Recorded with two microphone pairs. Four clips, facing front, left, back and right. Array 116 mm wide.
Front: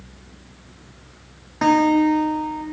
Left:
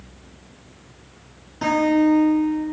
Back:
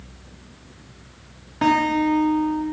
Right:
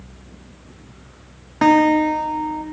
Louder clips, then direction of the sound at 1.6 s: Right 4 dB, front 3 dB; 80° right.